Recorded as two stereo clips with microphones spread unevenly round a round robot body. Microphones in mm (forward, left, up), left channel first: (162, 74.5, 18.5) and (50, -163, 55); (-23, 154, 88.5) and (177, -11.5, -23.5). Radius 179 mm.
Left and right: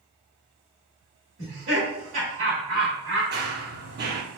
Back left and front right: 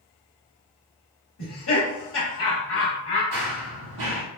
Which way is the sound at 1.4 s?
160° right.